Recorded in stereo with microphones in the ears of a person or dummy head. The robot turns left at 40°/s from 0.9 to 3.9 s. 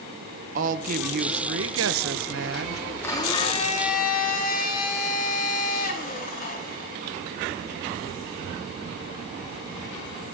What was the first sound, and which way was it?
A woman speaking, 45° right.